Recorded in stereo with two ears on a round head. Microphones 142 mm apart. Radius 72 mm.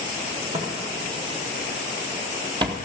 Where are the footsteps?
30° right (ahead or behind), 2.5 m; by 2.8 s 25° right (ahead or behind), 1.5 m.